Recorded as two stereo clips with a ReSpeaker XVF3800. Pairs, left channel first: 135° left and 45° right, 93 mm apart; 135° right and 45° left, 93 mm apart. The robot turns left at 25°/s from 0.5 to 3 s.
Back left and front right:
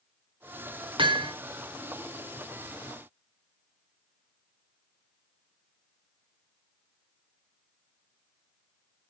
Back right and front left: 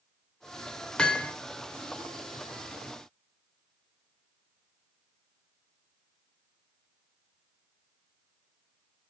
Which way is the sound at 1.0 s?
55° right.